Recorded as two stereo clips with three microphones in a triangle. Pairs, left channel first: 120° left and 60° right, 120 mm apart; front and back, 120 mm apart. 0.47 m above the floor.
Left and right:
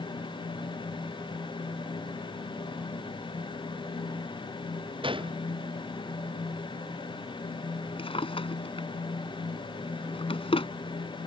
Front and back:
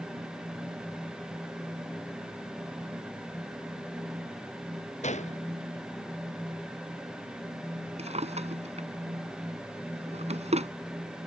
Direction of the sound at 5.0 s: 15° right.